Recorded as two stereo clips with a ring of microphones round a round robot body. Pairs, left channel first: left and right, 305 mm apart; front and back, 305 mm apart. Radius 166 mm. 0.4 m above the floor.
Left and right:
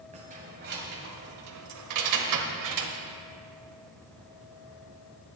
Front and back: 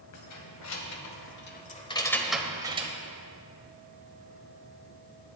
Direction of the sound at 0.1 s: 20° right.